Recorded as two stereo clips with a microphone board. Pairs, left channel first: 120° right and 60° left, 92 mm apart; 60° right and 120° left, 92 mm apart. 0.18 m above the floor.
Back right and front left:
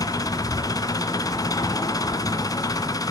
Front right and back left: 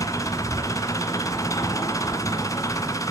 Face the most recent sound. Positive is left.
turn(degrees=-95)